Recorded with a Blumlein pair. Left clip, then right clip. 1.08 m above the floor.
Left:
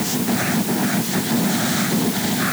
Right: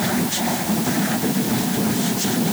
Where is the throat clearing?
No throat clearing in this recording.